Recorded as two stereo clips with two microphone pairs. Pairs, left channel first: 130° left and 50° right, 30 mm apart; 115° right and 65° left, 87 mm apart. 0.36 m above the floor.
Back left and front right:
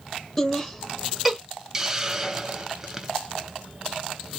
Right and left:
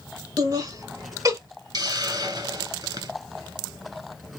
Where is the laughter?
65° left, 1.5 m; by 1.4 s 35° left, 1.6 m.